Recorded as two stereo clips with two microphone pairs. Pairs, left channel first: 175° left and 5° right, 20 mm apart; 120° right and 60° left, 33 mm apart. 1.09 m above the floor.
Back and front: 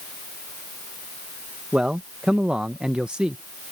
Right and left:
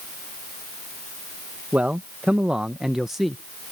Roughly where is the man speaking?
Ahead left.